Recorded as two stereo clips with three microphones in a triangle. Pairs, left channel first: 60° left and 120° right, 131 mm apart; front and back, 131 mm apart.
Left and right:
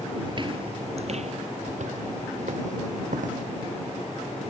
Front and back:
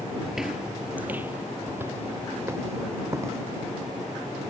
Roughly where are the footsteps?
Right.